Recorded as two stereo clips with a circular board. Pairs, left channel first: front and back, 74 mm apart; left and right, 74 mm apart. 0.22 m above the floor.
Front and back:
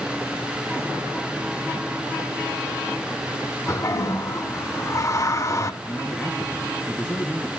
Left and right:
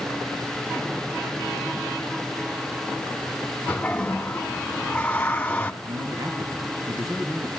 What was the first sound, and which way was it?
A toilet flushing, 25° left.